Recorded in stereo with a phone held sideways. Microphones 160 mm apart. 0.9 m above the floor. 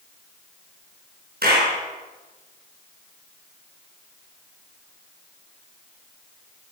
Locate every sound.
1.4 s a clap: 80° right, 8.5 m